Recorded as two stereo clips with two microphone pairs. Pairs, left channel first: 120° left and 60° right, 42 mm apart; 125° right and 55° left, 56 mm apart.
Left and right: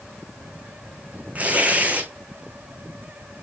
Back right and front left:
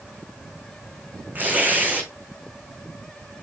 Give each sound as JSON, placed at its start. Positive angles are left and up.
{"t": 1.4, "sound": "tearing paper", "azimuth_deg": -5, "distance_m": 6.0}